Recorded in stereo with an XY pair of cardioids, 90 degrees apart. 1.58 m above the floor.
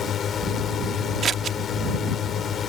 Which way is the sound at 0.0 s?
60° left.